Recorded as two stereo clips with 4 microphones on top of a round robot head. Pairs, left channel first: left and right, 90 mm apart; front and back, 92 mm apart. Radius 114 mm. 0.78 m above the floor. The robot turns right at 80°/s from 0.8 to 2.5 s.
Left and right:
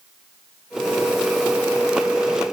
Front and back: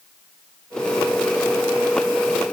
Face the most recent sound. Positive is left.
No sound to turn to.